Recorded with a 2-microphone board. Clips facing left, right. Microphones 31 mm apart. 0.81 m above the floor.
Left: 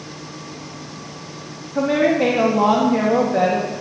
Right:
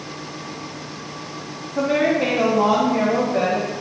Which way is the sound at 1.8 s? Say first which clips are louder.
Left 2 dB; 25° left (ahead or behind).